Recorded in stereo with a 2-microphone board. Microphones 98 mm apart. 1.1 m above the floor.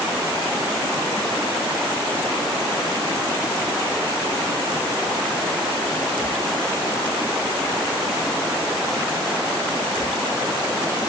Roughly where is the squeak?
I don't hear a squeak.